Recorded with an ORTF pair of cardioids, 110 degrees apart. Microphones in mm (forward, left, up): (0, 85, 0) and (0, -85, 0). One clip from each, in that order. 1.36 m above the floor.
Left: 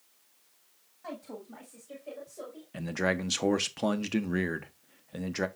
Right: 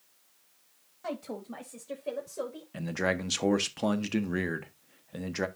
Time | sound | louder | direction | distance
1.0 | a woman speaking | right 5 dB | 35° right | 1.5 m
2.7 | a man speaking | even | 5° left | 0.8 m